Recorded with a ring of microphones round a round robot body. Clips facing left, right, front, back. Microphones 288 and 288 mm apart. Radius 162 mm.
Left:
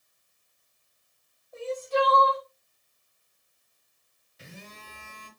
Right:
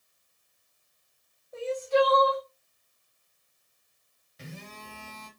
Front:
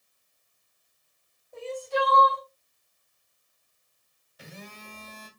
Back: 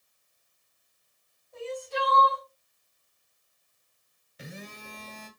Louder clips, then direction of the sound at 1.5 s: Right 3 dB, front 4 dB; 30° right.